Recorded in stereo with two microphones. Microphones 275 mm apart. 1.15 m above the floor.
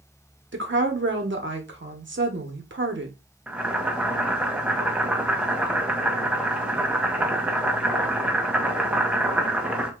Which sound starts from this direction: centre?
Boiling, at 3.5 s.